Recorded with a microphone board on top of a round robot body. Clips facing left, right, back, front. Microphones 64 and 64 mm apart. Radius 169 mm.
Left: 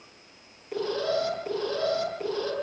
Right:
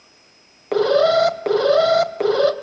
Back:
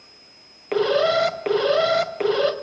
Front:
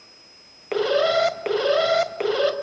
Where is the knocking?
I don't hear knocking.